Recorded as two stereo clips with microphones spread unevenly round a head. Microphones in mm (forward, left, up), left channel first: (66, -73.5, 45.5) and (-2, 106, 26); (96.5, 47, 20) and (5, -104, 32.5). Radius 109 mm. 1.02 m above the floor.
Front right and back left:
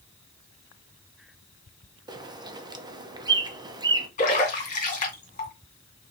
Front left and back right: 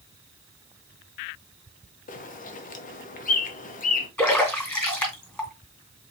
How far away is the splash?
About 2 m.